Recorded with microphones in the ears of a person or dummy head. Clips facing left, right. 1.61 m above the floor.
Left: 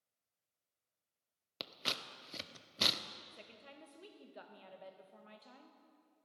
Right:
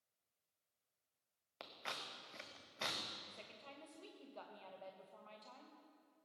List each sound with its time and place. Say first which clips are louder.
1.6 s scissors: left 5 dB; 40° left (ahead or behind), 0.6 m
3.3 s a woman speaking: left 1 dB; 25° left (ahead or behind), 1.3 m